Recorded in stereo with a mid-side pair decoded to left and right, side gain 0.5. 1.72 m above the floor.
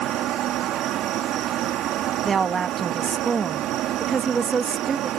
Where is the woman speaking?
35° right.